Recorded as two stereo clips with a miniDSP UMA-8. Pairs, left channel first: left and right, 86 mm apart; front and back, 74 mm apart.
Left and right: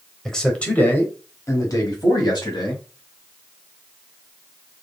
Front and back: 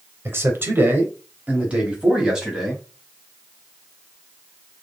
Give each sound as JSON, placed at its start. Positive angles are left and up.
{"t": 0.2, "sound": "a man speaking", "azimuth_deg": 170, "distance_m": 1.1}